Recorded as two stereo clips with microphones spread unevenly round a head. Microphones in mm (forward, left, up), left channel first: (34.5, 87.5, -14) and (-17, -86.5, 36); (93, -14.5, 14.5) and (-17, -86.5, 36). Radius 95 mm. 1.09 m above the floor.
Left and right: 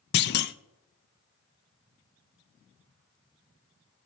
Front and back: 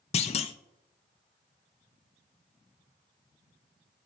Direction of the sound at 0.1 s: 75° left.